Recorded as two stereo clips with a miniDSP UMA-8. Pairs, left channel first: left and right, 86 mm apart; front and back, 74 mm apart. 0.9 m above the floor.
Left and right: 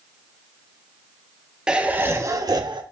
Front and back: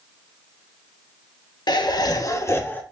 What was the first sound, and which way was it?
Laughter, 10° right.